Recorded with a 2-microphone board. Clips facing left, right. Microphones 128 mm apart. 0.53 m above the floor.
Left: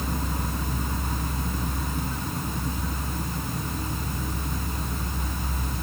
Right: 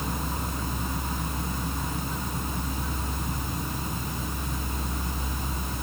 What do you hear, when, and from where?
Only background noise.